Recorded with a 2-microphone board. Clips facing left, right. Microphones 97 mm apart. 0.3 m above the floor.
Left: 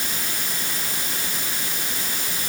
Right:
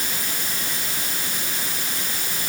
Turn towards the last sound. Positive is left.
No sound to turn to.